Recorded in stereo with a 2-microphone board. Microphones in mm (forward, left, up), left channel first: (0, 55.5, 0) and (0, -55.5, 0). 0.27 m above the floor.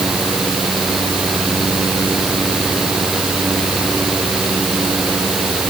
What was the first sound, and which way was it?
Only background noise.